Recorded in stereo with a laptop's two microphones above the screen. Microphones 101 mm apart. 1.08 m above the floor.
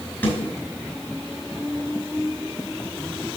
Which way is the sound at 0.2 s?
20° left (ahead or behind).